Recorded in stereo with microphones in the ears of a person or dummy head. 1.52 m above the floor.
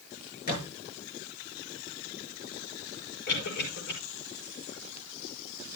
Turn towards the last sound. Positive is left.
turn(degrees=65)  # may be behind; listen again after turning